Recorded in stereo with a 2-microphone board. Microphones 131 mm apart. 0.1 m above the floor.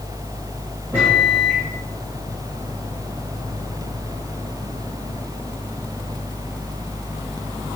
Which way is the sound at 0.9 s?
20° right (ahead or behind).